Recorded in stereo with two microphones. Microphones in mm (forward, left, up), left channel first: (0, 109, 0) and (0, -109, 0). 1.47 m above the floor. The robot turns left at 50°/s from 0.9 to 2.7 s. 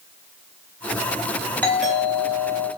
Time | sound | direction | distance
1.6 | a doorbell | 10° left | 4 m